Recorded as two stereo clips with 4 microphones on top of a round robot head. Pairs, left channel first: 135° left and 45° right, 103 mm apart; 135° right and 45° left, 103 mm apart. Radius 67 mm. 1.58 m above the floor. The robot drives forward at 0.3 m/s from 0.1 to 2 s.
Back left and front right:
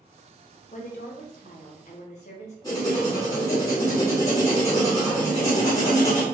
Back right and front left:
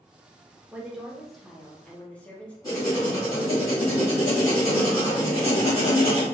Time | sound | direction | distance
0.7 | a woman speaking | 120° left | 0.6 m
2.6 | writing | 175° left | 1.5 m